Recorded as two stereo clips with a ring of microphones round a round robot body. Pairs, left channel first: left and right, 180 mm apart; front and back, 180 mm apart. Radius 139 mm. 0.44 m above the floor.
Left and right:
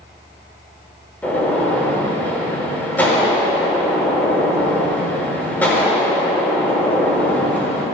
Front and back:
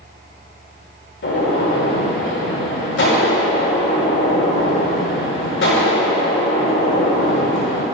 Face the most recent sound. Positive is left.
turn(degrees=10)